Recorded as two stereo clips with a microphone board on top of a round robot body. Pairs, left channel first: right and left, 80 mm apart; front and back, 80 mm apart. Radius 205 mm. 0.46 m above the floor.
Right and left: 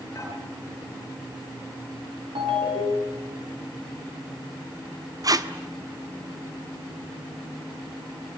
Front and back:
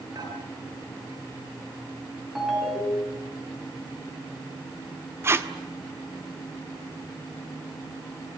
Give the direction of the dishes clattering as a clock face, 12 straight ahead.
5 o'clock.